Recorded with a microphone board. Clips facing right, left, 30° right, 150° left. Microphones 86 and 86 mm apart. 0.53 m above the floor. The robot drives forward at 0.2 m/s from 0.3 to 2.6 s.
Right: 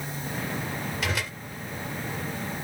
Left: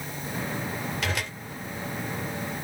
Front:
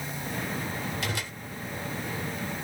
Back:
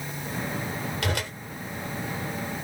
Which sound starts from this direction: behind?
A whoosh, at 1.0 s.